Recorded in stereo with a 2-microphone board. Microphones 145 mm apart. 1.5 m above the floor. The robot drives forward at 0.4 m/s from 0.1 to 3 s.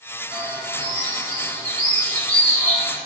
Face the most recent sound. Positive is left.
turn(degrees=-65)  # may be behind; listen again after turning